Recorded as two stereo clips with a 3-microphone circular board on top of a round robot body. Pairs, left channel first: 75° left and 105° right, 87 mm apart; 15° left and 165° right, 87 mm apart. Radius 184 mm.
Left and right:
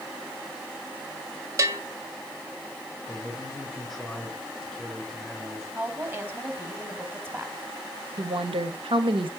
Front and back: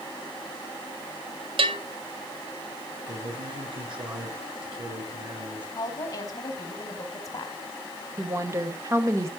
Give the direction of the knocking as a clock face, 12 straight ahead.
No knocking in this recording.